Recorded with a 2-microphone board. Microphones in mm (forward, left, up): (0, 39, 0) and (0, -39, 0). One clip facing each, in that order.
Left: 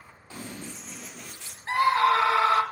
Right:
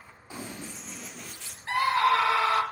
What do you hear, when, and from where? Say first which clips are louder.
0.3 s running footsteps: even; 15° right (ahead or behind), 2 m; by 1.6 s 20° left (ahead or behind), 1.8 m
1.7 s a scream: left 2 dB; 30° left (ahead or behind), 1.5 m